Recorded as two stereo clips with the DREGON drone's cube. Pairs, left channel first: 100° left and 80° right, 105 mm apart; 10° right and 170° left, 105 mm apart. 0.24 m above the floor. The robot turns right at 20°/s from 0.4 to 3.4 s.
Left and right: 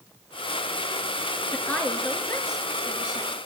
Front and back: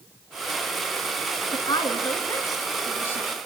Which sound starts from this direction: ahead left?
A woman speaking, at 1.5 s.